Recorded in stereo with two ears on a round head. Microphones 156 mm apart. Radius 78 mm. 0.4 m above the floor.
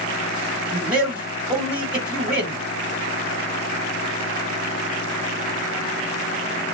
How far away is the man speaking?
About 2 m.